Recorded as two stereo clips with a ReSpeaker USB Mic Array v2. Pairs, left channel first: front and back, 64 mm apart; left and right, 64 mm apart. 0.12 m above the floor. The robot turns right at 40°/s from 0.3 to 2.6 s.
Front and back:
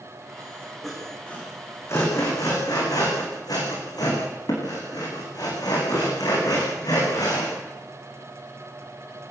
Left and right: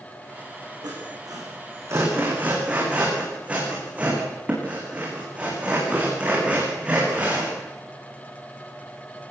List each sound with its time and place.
0.8 s sawing: 90° right, 7 m; by 7.5 s 20° right, 7 m